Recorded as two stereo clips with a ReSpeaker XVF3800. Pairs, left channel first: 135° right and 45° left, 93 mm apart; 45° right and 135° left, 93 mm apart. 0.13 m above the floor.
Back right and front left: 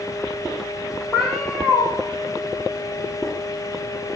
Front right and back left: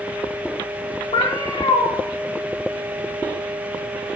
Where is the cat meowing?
50° right, 3.5 m.